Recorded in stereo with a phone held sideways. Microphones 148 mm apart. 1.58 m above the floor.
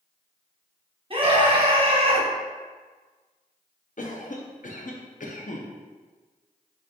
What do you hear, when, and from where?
1.1 s a scream: 40° right (ahead or behind), 0.9 m
4.0 s a cough: 60° left (ahead or behind), 0.6 m